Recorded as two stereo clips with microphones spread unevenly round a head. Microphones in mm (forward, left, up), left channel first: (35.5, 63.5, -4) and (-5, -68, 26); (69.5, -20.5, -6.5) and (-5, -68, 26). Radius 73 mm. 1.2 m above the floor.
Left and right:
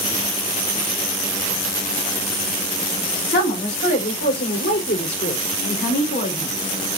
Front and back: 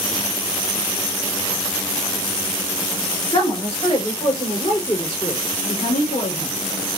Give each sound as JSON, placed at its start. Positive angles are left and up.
{"t": 3.3, "sound": "a woman speaking", "azimuth_deg": 90, "distance_m": 3.5}